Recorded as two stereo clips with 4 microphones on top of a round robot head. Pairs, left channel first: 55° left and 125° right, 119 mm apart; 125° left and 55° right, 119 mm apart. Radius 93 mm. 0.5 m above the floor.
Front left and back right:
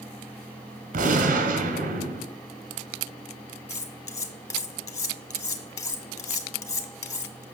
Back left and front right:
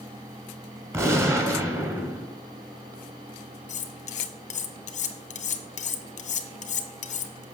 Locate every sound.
0.9 s a gunshot: 120° right, 1.5 m
3.7 s cutlery clinking: 115° left, 1.1 m